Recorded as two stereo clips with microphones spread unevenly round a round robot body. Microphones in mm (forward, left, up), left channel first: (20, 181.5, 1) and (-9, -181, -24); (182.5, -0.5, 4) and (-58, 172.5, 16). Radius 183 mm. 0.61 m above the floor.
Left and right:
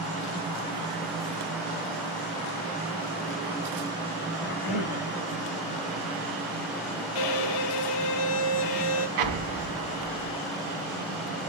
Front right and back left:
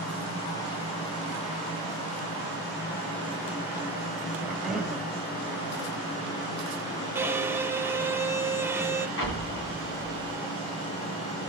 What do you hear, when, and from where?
4.4 s a cough: 55° left, 3.5 m
7.2 s a violin: 60° left, 1.0 m
9.2 s an explosion: 95° right, 2 m